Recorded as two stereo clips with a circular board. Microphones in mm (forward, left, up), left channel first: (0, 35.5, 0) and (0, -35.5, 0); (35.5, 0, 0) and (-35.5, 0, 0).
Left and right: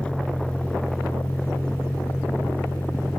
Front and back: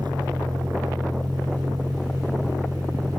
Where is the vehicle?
165° left; by 3.2 s 150° left.